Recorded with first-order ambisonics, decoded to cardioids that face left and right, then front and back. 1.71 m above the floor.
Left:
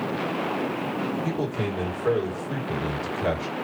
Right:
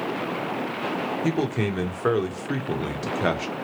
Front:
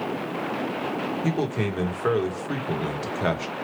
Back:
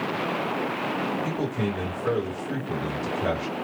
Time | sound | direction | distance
1.2 | a man speaking | 55° right | 1.0 m